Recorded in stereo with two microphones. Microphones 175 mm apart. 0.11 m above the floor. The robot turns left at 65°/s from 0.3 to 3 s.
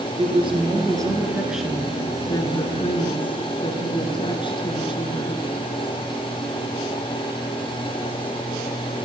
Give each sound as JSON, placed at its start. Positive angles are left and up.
{"t": 0.2, "sound": "a woman speaking", "side_deg": -30, "distance_m": 1.5}